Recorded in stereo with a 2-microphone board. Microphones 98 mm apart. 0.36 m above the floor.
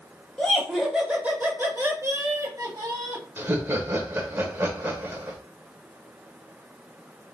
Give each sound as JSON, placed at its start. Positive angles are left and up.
{"t": 0.4, "sound": "laughter", "side_deg": 10, "distance_m": 1.1}
{"t": 3.4, "sound": "laughter", "side_deg": -25, "distance_m": 0.9}